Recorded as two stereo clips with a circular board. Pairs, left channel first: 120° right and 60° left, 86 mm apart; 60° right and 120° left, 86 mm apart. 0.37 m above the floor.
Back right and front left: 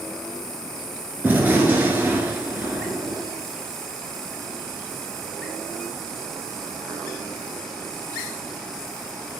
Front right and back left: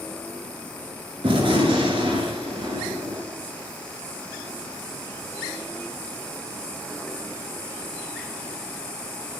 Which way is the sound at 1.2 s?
125° left.